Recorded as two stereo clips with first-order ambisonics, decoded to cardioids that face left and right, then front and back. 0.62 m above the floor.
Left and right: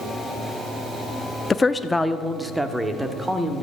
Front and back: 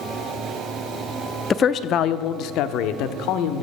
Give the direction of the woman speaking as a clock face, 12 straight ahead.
11 o'clock.